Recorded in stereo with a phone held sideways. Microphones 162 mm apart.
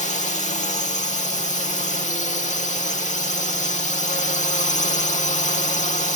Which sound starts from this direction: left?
A drone, at 0.0 s.